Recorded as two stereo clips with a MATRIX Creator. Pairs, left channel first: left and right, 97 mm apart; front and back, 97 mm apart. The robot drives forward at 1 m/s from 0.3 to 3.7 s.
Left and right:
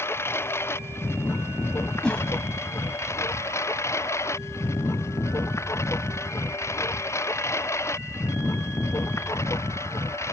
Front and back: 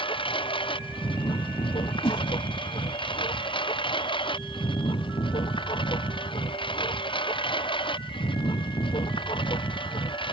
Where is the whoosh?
10° left; by 2.3 s 15° left.